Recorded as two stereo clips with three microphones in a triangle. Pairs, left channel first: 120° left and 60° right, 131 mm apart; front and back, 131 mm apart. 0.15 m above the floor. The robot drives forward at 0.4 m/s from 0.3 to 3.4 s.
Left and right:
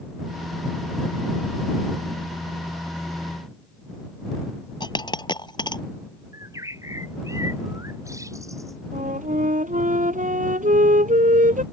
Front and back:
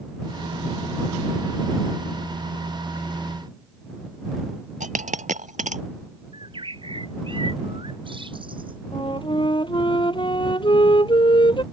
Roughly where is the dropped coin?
Behind.